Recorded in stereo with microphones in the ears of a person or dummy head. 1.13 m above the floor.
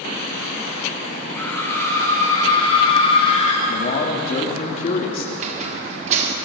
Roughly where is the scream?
Centre.